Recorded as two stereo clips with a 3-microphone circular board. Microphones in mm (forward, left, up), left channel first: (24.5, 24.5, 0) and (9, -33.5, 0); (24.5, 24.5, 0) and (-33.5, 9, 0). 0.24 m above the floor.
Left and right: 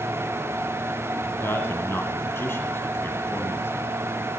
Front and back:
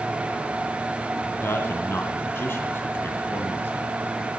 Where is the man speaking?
45° left, 1.9 m.